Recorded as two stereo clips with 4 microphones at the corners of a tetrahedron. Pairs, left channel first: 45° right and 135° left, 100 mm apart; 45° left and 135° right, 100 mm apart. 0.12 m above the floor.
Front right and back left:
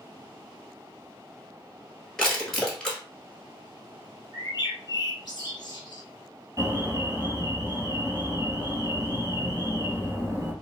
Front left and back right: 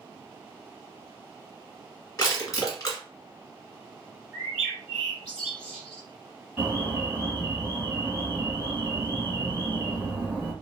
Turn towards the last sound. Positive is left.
turn(degrees=155)